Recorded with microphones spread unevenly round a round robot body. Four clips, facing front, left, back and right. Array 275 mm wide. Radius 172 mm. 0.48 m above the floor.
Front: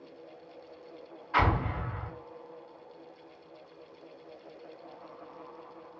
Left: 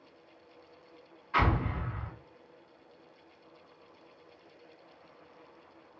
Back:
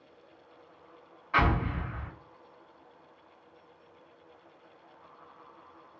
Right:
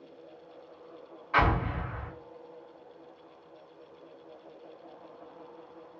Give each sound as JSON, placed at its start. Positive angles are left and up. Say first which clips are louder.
{"t": 1.3, "sound": "an explosion", "louder": "right 3 dB, even", "azimuth_deg": -120, "distance_m": 2.0}